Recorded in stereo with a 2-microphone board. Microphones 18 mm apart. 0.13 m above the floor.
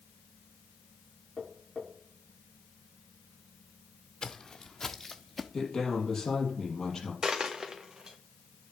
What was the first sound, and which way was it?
Tapping, 35° left (ahead or behind).